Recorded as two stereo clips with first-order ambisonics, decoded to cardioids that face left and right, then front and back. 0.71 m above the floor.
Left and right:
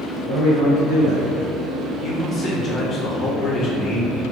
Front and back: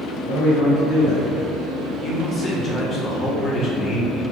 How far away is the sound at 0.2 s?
About 1.0 m.